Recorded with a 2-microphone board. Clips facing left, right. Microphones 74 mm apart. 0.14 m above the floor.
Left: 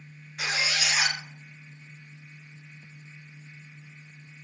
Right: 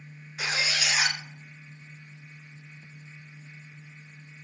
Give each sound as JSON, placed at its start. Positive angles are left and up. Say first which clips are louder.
{"t": 0.4, "sound": "a squeak", "louder": "even", "side_deg": -5, "distance_m": 1.2}